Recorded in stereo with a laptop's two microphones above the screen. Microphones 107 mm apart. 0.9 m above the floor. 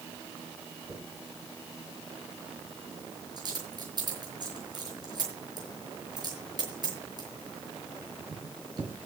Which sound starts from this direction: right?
A dropped coin, at 0.9 s.